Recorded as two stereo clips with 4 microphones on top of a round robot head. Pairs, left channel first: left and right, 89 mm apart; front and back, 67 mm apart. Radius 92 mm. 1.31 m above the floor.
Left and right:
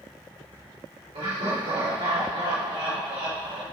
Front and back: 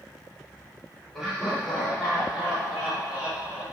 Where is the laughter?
90° right, 3.5 m; by 3.6 s 110° right, 4 m.